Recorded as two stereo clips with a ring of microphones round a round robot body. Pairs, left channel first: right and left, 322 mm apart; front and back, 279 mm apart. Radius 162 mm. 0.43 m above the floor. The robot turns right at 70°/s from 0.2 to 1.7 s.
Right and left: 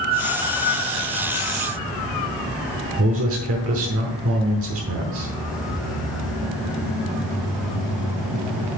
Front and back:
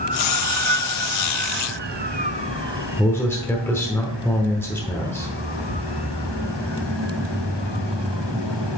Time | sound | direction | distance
3.0 | a man speaking | 80° left | 1.1 m